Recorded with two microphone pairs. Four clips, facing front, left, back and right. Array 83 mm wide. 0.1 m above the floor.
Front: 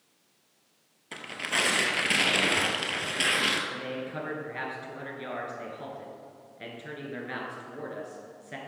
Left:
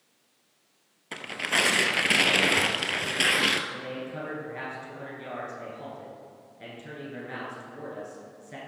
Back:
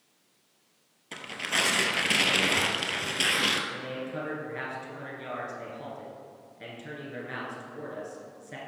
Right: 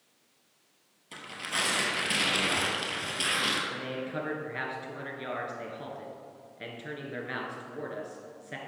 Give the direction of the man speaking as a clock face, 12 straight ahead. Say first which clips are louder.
Right 1 dB, even; 3 o'clock.